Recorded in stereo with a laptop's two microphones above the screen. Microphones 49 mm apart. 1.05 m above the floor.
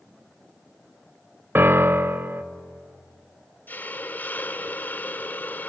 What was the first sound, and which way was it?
A piano, 45° right (ahead or behind).